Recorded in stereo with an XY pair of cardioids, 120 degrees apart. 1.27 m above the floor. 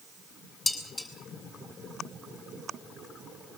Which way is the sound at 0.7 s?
25° left.